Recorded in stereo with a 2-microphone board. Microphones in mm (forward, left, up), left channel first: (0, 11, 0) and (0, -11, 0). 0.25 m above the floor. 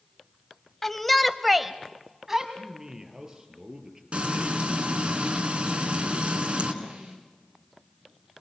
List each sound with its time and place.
0.8 s a shout: 15° left (ahead or behind), 1.1 m; by 2.5 s 20° right (ahead or behind), 1.6 m
2.6 s a man speaking: 25° right (ahead or behind), 5 m
4.1 s frying: 60° right (ahead or behind), 3.5 m
6.8 s a snare drum: 60° right (ahead or behind), 6 m